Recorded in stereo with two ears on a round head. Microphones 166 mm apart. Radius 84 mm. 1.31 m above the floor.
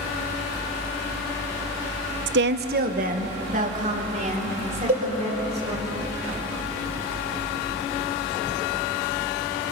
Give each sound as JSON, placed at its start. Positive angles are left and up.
{"t": 2.3, "sound": "a woman speaking", "side_deg": -70, "distance_m": 0.8}
{"t": 4.9, "sound": "a cowbell", "side_deg": -45, "distance_m": 5.0}